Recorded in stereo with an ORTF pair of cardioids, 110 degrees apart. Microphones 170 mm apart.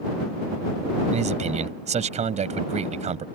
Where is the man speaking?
40° right.